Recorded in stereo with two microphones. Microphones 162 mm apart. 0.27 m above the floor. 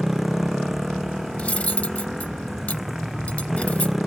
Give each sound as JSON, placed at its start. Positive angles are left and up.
{"t": 0.0, "sound": "a motorcycle", "side_deg": 0}
{"t": 1.4, "sound": "cutlery clinking", "side_deg": 10}